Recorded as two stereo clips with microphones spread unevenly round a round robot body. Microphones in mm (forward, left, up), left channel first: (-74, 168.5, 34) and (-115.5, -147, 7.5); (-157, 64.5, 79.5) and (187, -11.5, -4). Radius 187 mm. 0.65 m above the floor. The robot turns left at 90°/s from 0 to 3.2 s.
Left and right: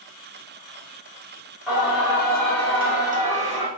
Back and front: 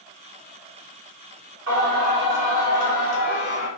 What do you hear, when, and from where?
1.7 s singing: 15° right, 1.3 m; by 3.7 s 150° right, 1.3 m